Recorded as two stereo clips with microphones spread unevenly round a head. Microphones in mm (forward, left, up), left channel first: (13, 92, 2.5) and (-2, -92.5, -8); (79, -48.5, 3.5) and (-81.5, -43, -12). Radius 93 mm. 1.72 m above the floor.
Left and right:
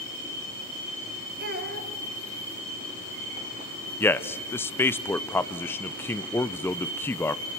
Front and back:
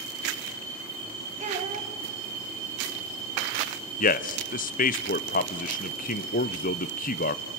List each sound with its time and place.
1.4 s a child speaking: 135° right, 3.5 m
4.0 s a man speaking: 10° left, 0.7 m